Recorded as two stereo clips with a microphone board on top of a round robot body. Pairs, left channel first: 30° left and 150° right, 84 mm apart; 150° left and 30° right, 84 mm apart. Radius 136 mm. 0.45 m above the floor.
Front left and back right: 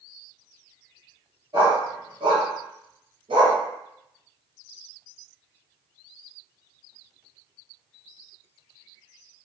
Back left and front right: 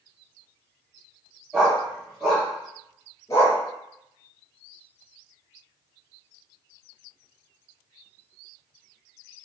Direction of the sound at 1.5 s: 110° right.